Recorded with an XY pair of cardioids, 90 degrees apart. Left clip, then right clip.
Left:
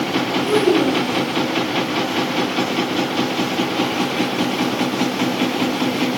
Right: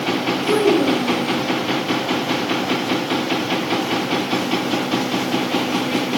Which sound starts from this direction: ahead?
A child speaking, at 0.4 s.